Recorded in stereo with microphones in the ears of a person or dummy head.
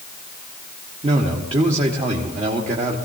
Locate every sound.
1.0 s a man speaking: 30° right (ahead or behind), 1.4 m